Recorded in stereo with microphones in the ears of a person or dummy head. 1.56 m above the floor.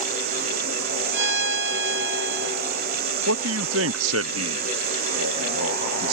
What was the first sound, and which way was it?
Running water, 60° right (ahead or behind).